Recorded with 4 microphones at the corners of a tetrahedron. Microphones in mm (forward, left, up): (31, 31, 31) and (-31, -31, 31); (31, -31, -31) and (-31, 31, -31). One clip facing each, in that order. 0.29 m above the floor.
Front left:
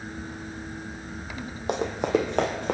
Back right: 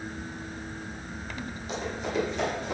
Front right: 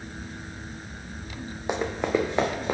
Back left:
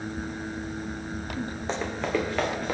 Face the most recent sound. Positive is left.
turn(degrees=25)